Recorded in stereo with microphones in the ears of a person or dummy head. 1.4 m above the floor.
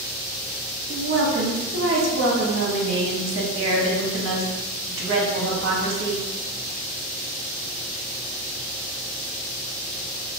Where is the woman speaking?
65° right (ahead or behind), 0.8 m.